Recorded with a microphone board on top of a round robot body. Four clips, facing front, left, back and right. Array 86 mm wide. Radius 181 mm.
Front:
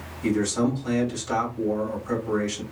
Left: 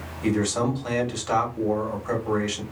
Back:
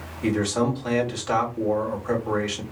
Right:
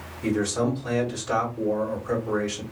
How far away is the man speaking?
About 2.5 m.